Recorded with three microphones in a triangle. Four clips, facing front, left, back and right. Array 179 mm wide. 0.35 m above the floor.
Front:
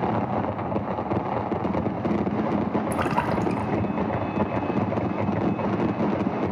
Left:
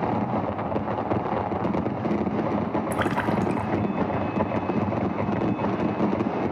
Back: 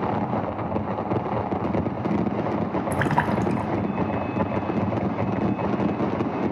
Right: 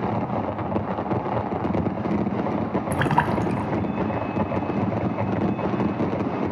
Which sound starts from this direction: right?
A splash, at 2.9 s.